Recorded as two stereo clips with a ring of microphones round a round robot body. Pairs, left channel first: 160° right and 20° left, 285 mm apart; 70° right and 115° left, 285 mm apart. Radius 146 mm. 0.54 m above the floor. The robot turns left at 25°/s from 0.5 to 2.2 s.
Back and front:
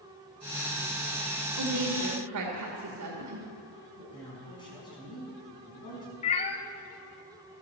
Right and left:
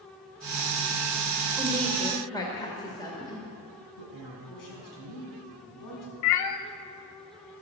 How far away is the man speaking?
About 6 m.